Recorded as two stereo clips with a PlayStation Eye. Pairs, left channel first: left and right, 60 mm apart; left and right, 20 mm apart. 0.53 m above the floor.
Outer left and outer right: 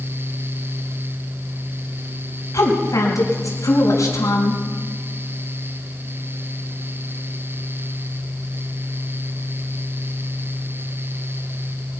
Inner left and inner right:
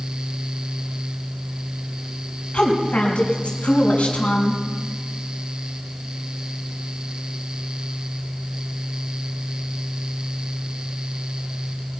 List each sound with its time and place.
2.5 s a woman speaking: 70° left (ahead or behind), 3.5 m